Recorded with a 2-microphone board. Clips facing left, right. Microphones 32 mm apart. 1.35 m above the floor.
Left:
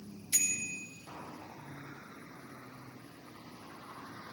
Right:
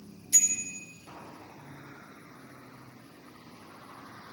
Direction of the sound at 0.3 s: 25° left (ahead or behind).